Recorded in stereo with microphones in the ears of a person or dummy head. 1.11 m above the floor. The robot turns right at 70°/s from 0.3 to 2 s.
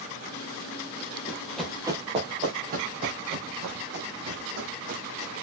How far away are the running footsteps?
About 2 m.